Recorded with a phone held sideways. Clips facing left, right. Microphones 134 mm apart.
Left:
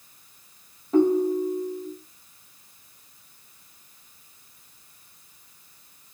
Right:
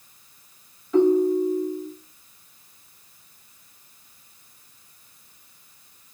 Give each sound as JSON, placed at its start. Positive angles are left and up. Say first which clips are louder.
{"t": 0.9, "sound": "a ringtone", "louder": "right 2 dB", "side_deg": 40, "distance_m": 0.8}